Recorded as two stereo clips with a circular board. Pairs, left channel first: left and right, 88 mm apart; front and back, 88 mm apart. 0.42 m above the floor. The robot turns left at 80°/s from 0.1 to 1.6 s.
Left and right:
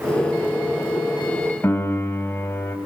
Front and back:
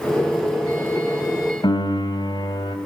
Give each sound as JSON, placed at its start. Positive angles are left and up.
{"t": 1.6, "sound": "a piano", "azimuth_deg": 30, "distance_m": 1.6}